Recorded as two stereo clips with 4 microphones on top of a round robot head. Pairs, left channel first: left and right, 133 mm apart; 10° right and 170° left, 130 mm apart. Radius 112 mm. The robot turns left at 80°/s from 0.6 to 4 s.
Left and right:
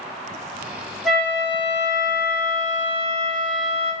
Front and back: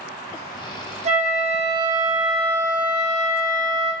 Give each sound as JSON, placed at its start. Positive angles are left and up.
{"t": 1.1, "sound": "a flute", "azimuth_deg": -175, "distance_m": 0.8}